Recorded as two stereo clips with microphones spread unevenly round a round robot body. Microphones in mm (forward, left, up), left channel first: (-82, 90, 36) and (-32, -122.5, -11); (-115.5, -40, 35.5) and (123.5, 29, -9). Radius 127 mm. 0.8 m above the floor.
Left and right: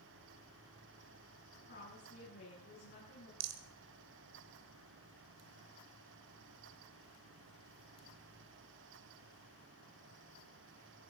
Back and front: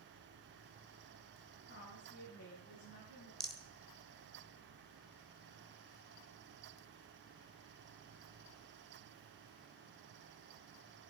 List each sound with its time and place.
1.6 s a woman speaking: 145° left, 9 m
3.4 s a rattle: 75° right, 1.6 m